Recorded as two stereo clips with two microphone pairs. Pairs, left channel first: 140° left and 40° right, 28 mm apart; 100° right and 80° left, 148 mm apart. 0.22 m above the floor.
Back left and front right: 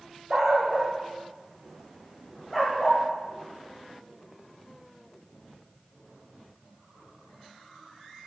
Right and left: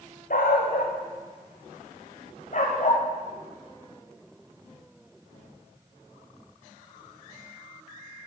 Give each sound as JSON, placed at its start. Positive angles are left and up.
{"t": 0.3, "sound": "a dog barking", "azimuth_deg": -115, "distance_m": 4.0}